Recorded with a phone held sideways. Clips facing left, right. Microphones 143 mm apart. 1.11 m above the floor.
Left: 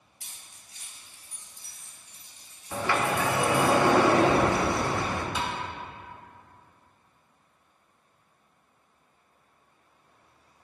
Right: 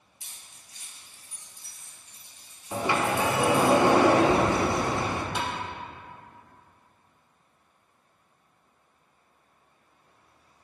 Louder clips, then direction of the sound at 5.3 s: Right 1 dB; 60° right (ahead or behind).